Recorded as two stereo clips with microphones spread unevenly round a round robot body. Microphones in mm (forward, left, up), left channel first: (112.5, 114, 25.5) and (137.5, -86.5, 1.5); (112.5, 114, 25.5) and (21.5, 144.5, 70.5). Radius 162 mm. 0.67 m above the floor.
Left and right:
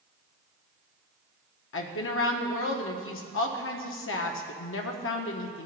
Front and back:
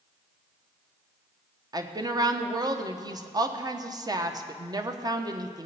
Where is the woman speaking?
95° left, 1.2 m.